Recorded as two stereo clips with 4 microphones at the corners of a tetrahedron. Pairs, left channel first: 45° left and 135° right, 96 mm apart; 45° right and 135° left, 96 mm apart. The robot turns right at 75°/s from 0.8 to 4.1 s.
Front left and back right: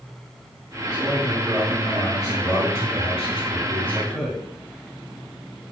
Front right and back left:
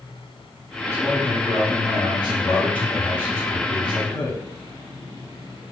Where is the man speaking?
110° right, 3 m; by 4.4 s 130° left, 3 m.